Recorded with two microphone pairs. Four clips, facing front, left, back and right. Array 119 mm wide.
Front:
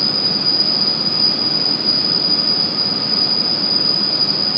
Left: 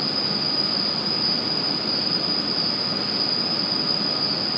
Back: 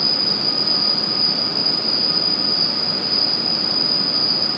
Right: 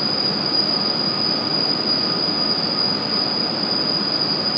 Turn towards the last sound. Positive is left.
turn(degrees=-20)